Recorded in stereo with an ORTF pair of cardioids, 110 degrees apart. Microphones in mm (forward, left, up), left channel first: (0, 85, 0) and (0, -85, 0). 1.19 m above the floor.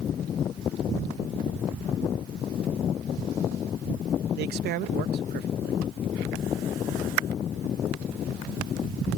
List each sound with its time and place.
4.4 s a man speaking: 70° right